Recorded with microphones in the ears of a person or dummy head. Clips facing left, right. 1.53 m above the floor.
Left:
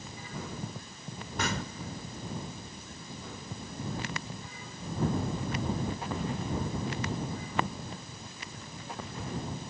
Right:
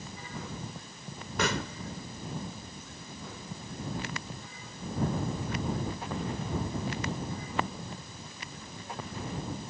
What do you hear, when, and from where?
1.4 s a pop: 65° right (ahead or behind)